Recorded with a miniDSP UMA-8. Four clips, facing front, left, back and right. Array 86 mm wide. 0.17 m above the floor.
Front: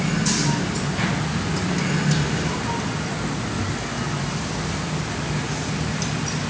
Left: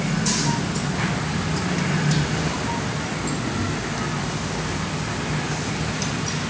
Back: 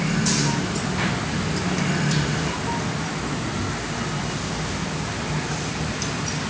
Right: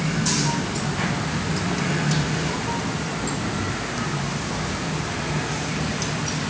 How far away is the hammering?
I don't hear hammering.